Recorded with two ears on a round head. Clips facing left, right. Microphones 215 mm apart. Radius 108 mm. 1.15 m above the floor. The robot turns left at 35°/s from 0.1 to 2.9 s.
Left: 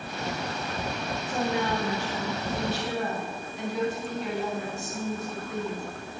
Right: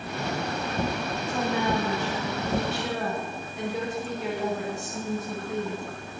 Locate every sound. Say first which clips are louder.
1.3 s a woman speaking: right 1 dB; 5° left, 5.5 m; by 5.8 s 50° right, 5.5 m